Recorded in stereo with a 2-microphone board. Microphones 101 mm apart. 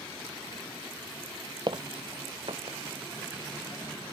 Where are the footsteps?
50° right (ahead or behind); by 2.8 s 65° right (ahead or behind).